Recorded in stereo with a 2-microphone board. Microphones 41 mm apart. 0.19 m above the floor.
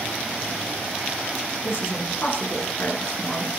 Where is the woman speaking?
55° left (ahead or behind), 2.5 m.